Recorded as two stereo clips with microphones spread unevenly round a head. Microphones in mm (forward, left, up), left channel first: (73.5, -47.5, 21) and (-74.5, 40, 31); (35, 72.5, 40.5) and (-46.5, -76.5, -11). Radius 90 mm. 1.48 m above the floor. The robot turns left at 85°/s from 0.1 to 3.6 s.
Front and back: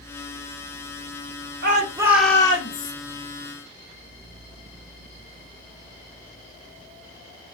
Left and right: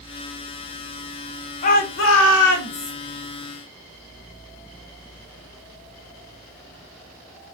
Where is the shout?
110° left, 1.2 m; by 2.9 s straight ahead, 1.2 m.